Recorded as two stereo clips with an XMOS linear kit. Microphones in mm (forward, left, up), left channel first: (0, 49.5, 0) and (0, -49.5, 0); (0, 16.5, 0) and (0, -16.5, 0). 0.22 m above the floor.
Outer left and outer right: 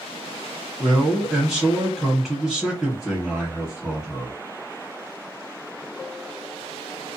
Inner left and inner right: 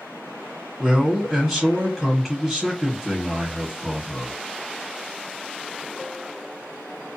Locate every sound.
0.8 s a man speaking: 5° right (ahead or behind), 1.0 m